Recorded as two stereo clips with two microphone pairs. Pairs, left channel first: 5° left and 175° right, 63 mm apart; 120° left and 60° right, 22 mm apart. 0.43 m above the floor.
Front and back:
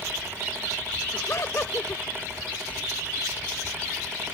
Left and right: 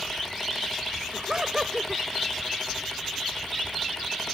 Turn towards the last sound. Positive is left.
turn(degrees=-15)